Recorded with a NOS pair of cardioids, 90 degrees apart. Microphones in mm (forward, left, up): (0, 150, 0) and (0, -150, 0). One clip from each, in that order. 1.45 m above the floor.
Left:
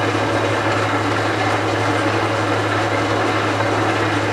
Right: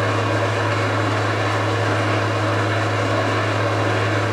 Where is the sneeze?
No sneeze in this recording.